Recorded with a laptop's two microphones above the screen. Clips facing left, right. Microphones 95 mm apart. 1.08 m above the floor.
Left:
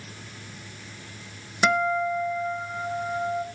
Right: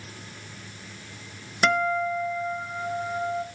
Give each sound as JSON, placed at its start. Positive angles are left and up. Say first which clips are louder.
{"t": 1.6, "sound": "a guitar", "louder": "left 1 dB", "side_deg": 10, "distance_m": 0.8}